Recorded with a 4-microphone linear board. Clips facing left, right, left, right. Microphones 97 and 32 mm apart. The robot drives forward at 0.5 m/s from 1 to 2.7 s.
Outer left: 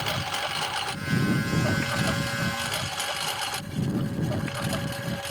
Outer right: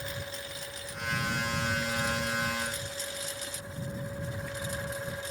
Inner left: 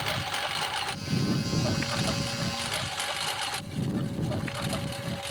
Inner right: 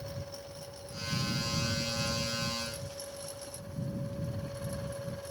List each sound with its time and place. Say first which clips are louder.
0.0 s a lawn mower: outer left 9 dB, inner left 13 dB; 85° left; by 5.3 s 75° left (ahead or behind)